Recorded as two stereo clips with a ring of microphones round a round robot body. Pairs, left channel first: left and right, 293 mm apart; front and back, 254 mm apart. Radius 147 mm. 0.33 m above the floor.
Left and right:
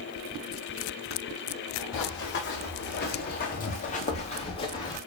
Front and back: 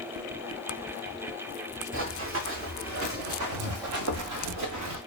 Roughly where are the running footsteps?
Behind left.